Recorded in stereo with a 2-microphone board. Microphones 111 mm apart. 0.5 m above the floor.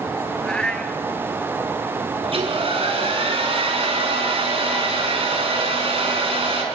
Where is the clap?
No clap in this recording.